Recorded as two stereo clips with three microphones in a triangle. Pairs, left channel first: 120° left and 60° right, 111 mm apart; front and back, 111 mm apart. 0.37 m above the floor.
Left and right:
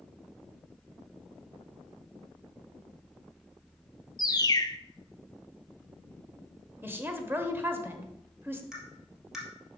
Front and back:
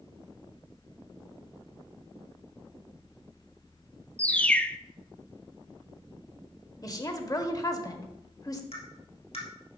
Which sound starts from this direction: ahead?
A woman speaking, at 6.8 s.